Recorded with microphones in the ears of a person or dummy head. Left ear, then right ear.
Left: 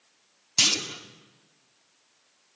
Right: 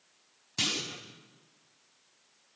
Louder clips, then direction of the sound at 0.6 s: Left 8 dB; 15° left (ahead or behind).